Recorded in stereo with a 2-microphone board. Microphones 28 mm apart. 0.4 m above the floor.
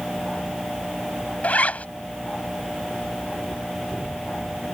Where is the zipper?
65° left (ahead or behind).